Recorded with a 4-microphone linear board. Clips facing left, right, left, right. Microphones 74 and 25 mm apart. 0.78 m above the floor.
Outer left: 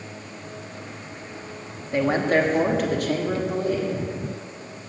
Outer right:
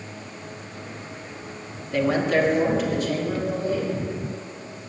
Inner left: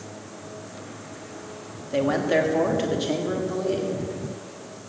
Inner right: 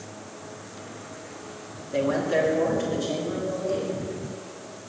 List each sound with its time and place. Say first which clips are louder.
1.9 s a man speaking: outer left 1 dB, inner left 2 dB; 25° left (ahead or behind), 1.3 m; by 4.0 s 70° left (ahead or behind), 2 m